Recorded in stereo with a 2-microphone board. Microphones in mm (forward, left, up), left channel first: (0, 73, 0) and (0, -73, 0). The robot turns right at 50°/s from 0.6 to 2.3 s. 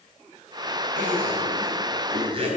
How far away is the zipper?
About 2.5 m.